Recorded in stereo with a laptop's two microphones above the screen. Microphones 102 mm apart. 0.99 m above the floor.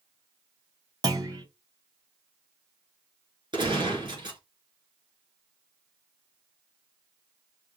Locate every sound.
1.0 s a clunk: 40° right (ahead or behind), 1.0 m
3.5 s a gunshot: 50° right (ahead or behind), 2.5 m